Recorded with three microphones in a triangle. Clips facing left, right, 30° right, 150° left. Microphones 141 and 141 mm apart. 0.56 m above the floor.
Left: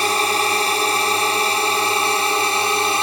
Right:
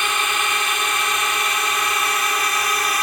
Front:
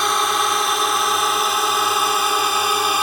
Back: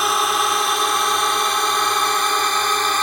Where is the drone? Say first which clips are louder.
Left 5 dB, even; 65° left; by 3.0 s 45° left.